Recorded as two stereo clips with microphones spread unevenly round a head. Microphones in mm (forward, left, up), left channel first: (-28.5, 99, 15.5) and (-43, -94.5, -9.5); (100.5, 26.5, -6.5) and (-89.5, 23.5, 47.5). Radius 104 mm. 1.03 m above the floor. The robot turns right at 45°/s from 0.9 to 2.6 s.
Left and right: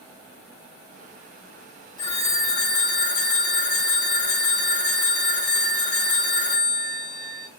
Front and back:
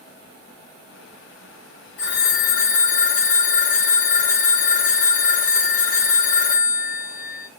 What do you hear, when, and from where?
2.0 s a phone ringing: 10° left, 0.7 m; by 7.5 s 40° left, 0.7 m